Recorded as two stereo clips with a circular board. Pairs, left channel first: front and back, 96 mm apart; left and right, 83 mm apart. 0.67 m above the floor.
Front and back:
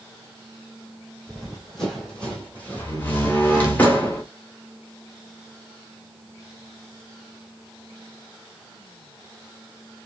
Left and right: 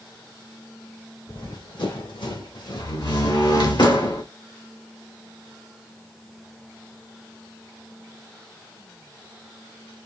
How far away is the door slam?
About 1.7 m.